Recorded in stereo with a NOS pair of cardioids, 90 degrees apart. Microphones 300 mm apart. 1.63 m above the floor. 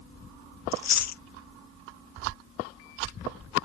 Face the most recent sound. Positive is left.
turn(degrees=60)